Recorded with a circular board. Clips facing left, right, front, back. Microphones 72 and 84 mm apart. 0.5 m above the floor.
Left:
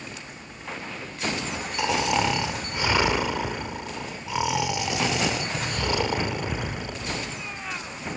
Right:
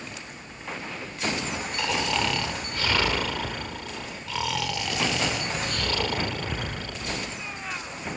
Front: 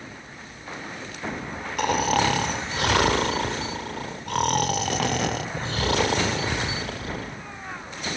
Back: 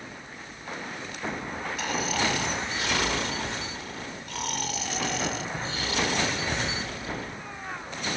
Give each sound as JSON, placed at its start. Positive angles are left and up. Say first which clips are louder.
{"t": 1.8, "sound": "snoring", "louder": "left 4 dB, front 8 dB", "azimuth_deg": 20, "distance_m": 0.7}